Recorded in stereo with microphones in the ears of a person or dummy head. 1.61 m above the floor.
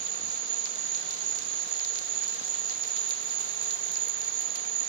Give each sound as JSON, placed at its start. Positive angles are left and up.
{"t": 0.0, "sound": "an insect", "side_deg": -75, "distance_m": 0.8}